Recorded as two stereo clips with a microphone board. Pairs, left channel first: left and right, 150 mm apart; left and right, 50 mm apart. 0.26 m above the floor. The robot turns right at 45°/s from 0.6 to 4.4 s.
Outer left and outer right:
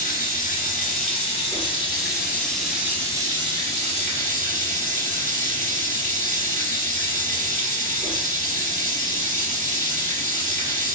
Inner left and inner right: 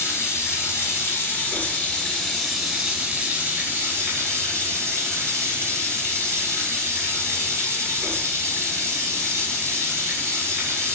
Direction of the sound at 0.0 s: 90° left.